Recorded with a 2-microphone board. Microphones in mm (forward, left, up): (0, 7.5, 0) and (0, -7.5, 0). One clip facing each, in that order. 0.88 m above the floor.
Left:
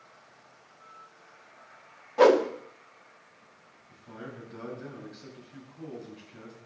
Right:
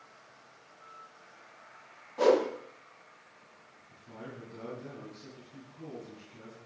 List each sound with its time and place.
2.2 s a whoosh: 75° left (ahead or behind), 1.3 m
3.9 s a man speaking: 70° left (ahead or behind), 7.5 m